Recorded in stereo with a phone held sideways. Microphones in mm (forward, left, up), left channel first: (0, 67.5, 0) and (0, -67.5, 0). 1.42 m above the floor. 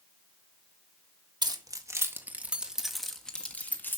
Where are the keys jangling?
30° right (ahead or behind), 1.6 m; by 4.0 s 15° left (ahead or behind), 2 m.